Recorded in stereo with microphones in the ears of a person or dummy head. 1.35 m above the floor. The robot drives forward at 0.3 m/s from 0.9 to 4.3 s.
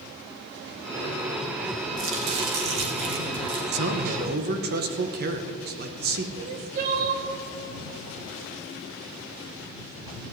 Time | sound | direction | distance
2.0 | chopping | 65° right (ahead or behind) | 3 m
3.7 | a man speaking | 55° right (ahead or behind) | 0.9 m
6.4 | crying | 50° right (ahead or behind) | 1.6 m